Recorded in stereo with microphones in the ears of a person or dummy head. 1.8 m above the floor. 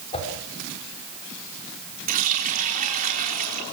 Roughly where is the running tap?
Right.